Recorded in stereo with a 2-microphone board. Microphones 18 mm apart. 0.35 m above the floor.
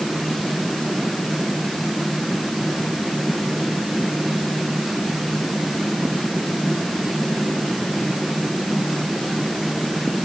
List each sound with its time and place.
Only background noise.